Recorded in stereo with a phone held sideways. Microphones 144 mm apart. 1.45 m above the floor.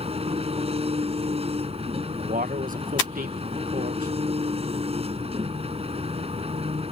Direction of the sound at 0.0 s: 45° right (ahead or behind).